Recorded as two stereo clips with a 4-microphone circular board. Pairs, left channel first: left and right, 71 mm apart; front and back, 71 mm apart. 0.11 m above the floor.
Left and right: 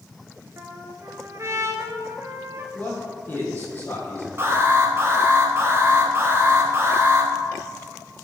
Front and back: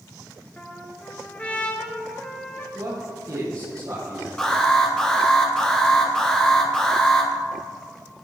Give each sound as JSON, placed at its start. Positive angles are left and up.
{"t": 0.6, "sound": "a trumpet", "azimuth_deg": -65, "distance_m": 1.2}
{"t": 2.7, "sound": "a man speaking", "azimuth_deg": 150, "distance_m": 4.0}
{"t": 4.4, "sound": "an alarm", "azimuth_deg": -70, "distance_m": 1.9}